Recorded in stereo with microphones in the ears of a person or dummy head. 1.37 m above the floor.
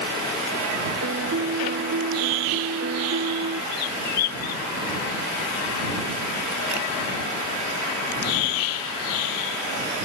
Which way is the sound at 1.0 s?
70° right (ahead or behind).